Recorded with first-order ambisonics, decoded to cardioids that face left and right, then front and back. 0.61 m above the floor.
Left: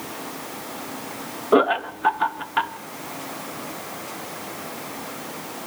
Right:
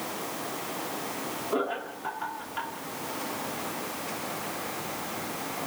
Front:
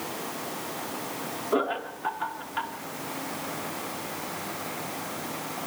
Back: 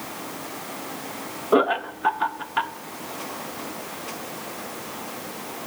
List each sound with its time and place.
1.5 s laughter: 120° left, 1.0 m